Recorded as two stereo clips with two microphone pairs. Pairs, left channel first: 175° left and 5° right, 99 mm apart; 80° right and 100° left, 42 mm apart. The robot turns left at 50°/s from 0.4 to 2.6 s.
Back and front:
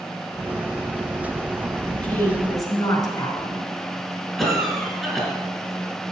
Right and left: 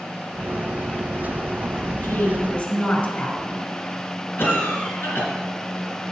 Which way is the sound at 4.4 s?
85° right.